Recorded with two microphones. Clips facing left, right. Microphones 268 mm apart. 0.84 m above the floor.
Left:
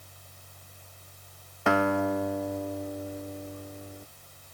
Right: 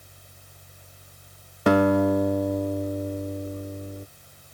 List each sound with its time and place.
1.7 s a guitar: 40° right (ahead or behind)